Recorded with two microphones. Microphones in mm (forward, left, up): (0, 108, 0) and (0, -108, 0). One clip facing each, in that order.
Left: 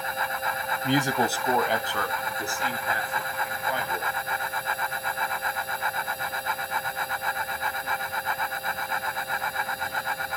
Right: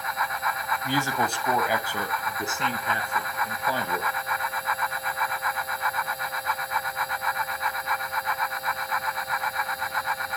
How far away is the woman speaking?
About 1.8 m.